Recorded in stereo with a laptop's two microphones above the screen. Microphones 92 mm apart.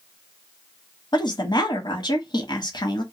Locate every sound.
1.1 s a woman speaking: 55° left (ahead or behind), 1.0 m